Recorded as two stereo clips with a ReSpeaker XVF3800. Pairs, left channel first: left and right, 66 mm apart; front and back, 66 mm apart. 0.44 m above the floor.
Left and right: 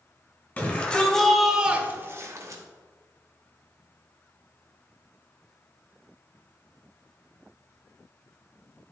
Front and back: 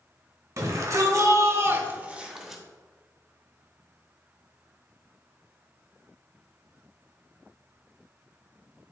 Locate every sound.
0.6 s a shout: 150° left, 1.7 m; by 2.6 s 90° right, 1.4 m